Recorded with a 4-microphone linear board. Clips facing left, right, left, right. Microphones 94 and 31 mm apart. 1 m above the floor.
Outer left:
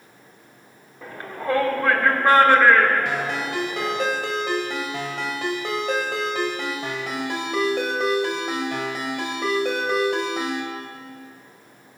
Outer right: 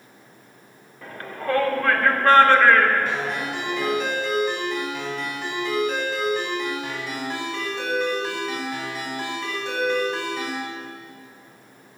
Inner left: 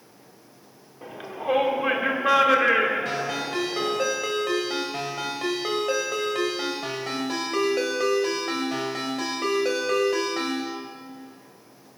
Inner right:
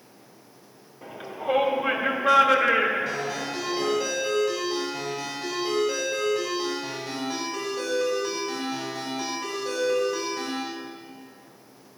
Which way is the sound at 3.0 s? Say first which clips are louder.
Outer left 1 dB, inner left 1 dB; 75° left (ahead or behind).